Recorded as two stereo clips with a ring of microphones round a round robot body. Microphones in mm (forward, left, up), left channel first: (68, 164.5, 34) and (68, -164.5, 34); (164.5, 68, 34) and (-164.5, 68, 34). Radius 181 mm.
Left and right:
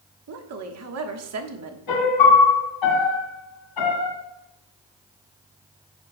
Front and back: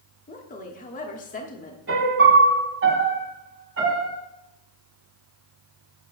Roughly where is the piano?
Behind left.